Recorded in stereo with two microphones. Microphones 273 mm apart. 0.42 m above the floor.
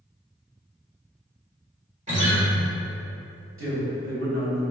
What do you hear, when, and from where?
2.1 s a guitar: 25° right (ahead or behind), 1.4 m
3.6 s a man speaking: 50° right (ahead or behind), 1.7 m